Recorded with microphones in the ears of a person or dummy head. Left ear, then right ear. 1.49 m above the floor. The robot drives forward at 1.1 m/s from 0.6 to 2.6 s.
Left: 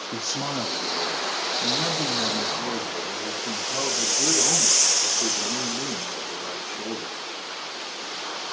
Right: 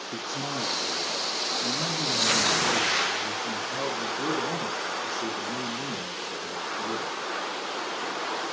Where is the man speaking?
80° left, 2.5 m; by 7.2 s 45° left (ahead or behind), 4 m.